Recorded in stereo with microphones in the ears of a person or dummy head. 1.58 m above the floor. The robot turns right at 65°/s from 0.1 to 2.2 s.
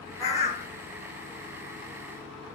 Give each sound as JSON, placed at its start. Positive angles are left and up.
{"t": 0.2, "sound": "a bird", "azimuth_deg": 25, "distance_m": 1.2}